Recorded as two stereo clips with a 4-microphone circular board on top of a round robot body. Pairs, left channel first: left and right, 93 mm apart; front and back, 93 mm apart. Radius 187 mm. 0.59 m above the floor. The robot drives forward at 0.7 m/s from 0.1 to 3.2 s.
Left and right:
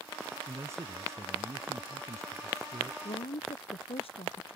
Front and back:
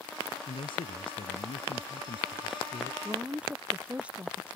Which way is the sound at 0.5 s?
30° right.